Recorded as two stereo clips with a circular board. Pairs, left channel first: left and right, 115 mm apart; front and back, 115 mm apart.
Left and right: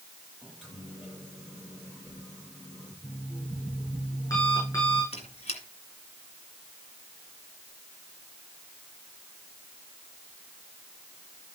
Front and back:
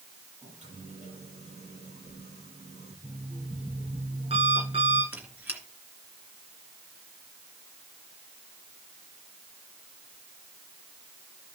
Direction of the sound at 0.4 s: Straight behind.